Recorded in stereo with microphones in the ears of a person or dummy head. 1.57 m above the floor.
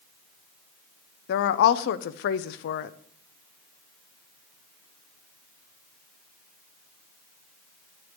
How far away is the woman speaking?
About 0.5 m.